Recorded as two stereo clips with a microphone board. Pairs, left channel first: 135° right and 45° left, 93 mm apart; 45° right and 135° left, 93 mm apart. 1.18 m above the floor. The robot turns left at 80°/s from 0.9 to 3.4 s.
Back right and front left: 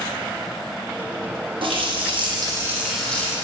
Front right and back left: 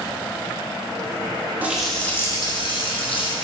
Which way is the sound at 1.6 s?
65° left.